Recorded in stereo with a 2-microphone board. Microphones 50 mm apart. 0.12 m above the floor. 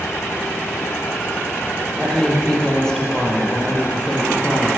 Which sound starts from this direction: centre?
A woman speaking, at 2.0 s.